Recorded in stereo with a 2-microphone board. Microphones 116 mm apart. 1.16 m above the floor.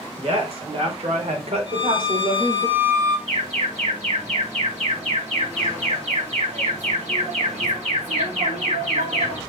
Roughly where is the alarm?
Right.